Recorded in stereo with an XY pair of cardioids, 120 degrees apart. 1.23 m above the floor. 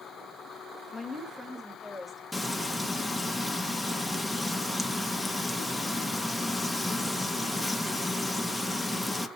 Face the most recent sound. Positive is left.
turn(degrees=0)